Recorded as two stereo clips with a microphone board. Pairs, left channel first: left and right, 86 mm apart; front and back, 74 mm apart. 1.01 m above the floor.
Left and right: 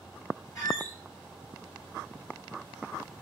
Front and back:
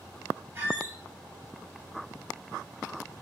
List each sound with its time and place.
0.6 s a squeak: 130° left, 1.3 m